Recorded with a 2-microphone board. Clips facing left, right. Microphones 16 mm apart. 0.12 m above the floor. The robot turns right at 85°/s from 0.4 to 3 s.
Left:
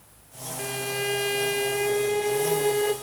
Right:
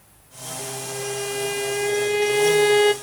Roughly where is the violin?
Left.